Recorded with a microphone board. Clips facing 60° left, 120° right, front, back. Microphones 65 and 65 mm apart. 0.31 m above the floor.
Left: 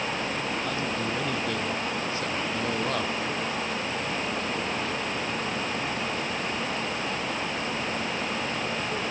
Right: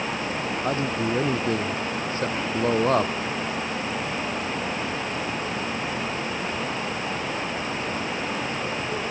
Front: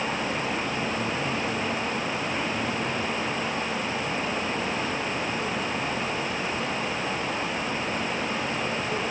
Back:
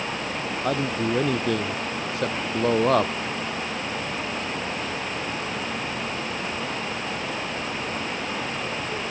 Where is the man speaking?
175° right.